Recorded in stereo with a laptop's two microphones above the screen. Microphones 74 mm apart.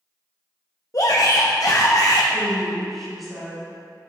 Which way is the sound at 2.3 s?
Centre (ahead or behind).